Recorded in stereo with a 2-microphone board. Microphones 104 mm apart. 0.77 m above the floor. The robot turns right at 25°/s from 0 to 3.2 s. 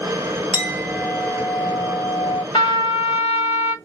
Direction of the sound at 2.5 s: 50° left (ahead or behind).